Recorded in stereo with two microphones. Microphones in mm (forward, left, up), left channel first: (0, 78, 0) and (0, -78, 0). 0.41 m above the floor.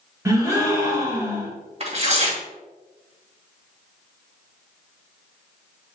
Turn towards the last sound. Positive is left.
turn(degrees=-45)  # may be behind; listen again after turning